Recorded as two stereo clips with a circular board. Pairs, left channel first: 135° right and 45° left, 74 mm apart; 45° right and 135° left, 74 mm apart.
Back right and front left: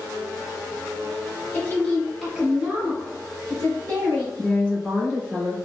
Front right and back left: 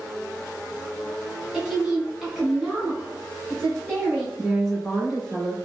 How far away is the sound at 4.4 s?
About 1.5 m.